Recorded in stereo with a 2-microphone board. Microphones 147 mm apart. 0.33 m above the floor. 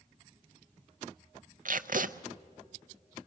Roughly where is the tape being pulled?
Right.